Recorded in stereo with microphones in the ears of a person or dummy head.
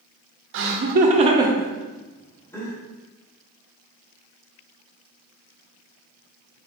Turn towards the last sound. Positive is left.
turn(degrees=20)  # may be behind; listen again after turning